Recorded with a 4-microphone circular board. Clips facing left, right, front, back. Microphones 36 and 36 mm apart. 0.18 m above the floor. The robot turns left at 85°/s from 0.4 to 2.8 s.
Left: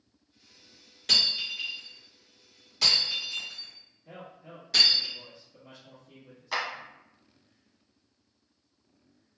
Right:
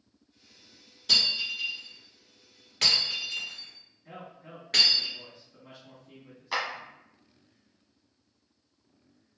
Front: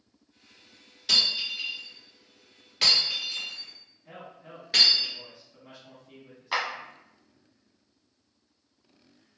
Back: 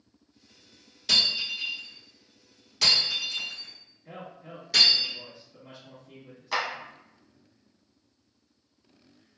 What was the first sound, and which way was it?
Breaking glass, 90° left.